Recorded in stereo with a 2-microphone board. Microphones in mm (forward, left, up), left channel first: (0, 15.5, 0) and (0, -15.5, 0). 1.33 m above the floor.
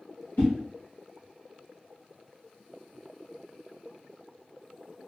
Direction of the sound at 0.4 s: 80° left.